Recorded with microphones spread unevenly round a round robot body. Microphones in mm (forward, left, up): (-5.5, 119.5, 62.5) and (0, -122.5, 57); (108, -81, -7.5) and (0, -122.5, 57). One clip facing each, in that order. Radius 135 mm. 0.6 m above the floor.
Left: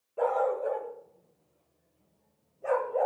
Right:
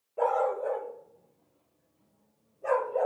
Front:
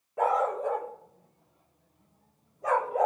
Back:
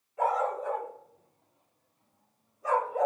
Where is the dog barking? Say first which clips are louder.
Even, front 2 dB; 10° left, 4.5 m; by 3.1 s straight ahead, 3 m.